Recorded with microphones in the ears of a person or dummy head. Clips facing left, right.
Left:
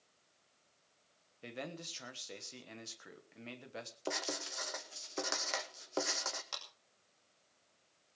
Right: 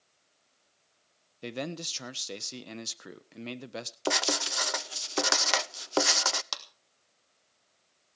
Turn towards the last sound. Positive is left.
turn(degrees=-85)